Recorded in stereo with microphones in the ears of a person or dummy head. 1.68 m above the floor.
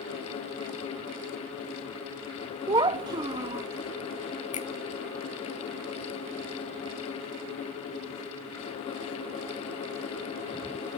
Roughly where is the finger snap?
Left.